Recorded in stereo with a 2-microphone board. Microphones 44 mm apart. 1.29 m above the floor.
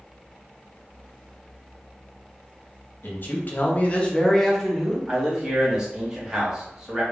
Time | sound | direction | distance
3.0 | a man speaking | 50° left (ahead or behind) | 0.9 m
5.1 | a man speaking | 15° right (ahead or behind) | 1.1 m